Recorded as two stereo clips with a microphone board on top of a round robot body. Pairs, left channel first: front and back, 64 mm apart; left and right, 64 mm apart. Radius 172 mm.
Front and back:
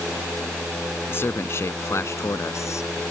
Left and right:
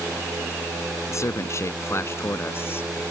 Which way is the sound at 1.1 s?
50° left.